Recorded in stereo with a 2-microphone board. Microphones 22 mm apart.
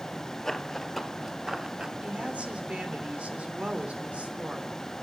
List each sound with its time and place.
0.5 s running footsteps: 20° left (ahead or behind), 1.2 m; by 1.9 s 30° right (ahead or behind), 1.2 m
2.0 s a woman speaking: 70° right (ahead or behind), 3 m